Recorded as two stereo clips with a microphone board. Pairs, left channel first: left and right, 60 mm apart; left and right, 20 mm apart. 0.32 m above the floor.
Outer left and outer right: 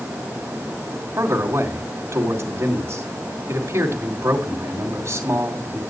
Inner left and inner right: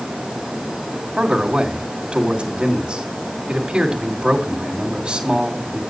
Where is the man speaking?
50° right (ahead or behind), 2.5 m.